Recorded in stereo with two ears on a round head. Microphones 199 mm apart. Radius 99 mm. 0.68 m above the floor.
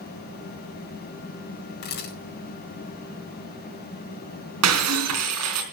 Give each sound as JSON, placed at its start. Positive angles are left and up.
{"t": 1.8, "sound": "a camera shutter", "side_deg": 55, "distance_m": 4.5}
{"t": 4.6, "sound": "breaking glass", "side_deg": -80, "distance_m": 4.0}